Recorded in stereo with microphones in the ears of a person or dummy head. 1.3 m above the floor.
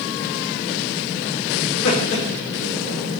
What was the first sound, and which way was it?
Laughter, 60° left (ahead or behind).